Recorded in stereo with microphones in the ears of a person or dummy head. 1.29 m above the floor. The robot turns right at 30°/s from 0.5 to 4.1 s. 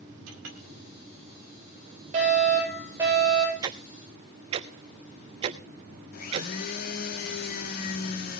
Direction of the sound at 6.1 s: 50° left (ahead or behind).